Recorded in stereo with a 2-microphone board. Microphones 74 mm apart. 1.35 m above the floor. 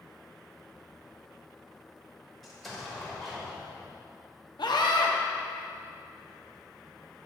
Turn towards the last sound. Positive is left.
turn(degrees=70)  # may be behind; listen again after turning